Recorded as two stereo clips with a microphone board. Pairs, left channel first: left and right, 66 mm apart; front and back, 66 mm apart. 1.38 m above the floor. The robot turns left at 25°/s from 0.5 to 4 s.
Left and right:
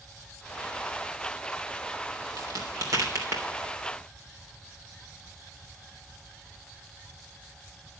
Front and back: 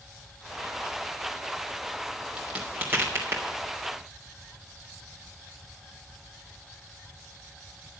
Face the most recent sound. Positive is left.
turn(degrees=-145)